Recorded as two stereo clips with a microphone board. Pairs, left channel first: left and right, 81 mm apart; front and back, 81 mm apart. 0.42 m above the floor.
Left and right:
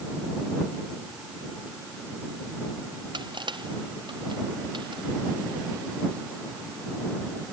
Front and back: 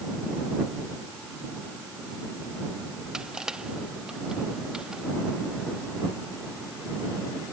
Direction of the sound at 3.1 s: 100° right.